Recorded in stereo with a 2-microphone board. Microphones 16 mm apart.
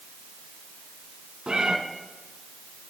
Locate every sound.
1.5 s a cat meowing: 70° right (ahead or behind), 1.5 m